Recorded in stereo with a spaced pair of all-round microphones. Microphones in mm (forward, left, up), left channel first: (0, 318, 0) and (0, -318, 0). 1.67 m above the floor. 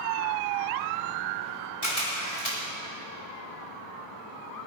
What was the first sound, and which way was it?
A camera shutter, 65° left (ahead or behind).